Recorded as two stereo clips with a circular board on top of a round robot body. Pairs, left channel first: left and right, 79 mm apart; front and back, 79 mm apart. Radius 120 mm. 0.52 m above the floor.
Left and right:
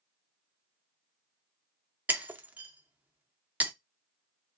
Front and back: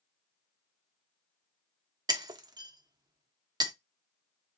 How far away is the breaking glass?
About 0.8 m.